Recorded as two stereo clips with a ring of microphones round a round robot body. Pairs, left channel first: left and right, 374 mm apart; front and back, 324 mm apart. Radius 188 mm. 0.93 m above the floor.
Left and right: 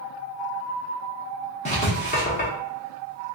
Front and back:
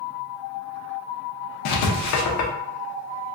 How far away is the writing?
About 0.5 m.